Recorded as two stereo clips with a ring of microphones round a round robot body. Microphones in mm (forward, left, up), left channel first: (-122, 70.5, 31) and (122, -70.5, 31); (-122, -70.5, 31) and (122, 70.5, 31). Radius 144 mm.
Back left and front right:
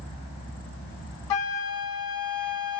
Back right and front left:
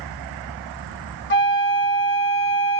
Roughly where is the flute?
Behind left.